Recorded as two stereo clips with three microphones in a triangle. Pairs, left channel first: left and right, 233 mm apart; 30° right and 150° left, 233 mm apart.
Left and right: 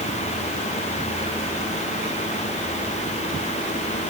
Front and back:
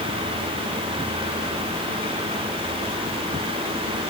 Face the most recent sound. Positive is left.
No sound to turn to.